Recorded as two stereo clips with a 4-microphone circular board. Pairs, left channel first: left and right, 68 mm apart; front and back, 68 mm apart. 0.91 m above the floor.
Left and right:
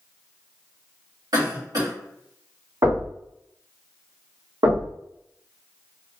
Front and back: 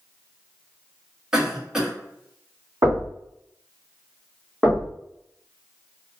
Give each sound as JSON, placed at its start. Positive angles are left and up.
{"t": 1.3, "sound": "a cough", "azimuth_deg": -100, "distance_m": 1.7}
{"t": 2.8, "sound": "knocking", "azimuth_deg": -135, "distance_m": 2.0}
{"t": 4.6, "sound": "knocking", "azimuth_deg": -95, "distance_m": 1.4}